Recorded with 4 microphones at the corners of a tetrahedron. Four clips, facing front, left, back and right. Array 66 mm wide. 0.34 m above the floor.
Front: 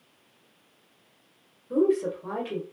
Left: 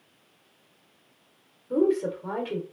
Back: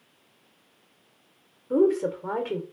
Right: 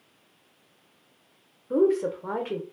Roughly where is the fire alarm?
No fire alarm in this recording.